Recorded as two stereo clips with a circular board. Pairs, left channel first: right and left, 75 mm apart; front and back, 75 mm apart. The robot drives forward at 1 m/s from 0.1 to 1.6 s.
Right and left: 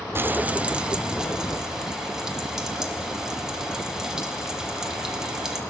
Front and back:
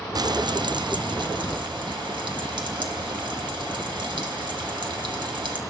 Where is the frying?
150° left, 0.5 m; by 5.6 s 170° left, 1.9 m.